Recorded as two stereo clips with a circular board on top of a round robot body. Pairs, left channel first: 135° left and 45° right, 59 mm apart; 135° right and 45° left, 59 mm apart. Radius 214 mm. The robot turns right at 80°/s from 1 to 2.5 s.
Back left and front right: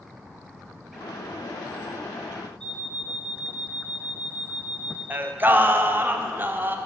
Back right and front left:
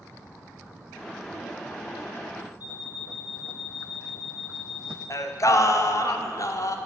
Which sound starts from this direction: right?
Singing, at 5.1 s.